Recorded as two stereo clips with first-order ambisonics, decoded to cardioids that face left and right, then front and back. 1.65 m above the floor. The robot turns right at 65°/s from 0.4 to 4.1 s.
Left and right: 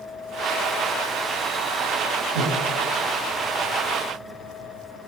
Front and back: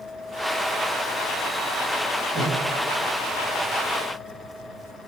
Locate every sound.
2.4 s breathing: 110° right, 6 m; by 2.6 s 95° right, 6 m